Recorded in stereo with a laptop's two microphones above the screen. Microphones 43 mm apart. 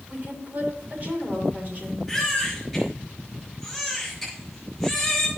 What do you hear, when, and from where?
0.1 s a woman speaking: 50° right (ahead or behind), 6 m
2.1 s a baby crying: 5° right (ahead or behind), 5 m